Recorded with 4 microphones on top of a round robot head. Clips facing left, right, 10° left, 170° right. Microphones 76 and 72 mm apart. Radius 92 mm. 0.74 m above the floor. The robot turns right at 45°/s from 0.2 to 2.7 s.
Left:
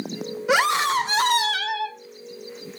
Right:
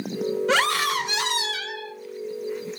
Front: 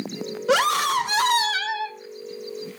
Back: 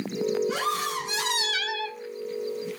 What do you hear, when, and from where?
0.5 s a scream: 10° left, 2.5 m; by 2.0 s 80° left, 2.5 m